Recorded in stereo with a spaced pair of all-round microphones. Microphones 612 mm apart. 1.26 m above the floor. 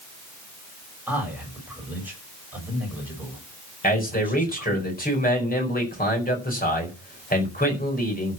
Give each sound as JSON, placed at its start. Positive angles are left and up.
{"t": 1.1, "sound": "a man speaking", "side_deg": -5, "distance_m": 6.5}
{"t": 3.8, "sound": "a man speaking", "side_deg": 15, "distance_m": 4.5}